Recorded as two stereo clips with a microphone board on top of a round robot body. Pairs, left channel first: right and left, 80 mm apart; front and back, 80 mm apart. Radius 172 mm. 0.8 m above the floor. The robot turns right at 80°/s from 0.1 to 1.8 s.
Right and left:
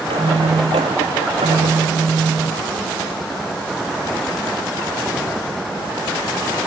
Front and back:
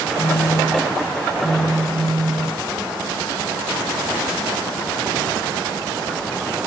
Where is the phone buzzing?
15° left, 1.1 m; by 2.5 s 145° left, 1.1 m.